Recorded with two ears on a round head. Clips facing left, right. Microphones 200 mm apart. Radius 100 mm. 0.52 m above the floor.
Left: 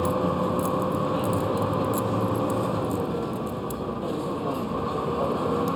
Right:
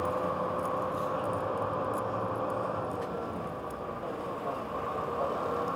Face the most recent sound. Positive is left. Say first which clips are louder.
# left 7 dB
turn(degrees=55)  # may be behind; listen again after turning